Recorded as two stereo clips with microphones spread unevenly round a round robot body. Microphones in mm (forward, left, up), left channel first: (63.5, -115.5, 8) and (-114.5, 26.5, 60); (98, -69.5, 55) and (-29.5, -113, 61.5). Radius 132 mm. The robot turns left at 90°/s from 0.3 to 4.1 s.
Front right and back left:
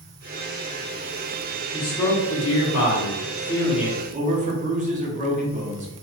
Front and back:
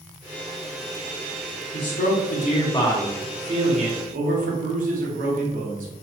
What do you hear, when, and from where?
1.7 s a man speaking: 55° left, 0.9 m; by 5.9 s 160° right, 0.9 m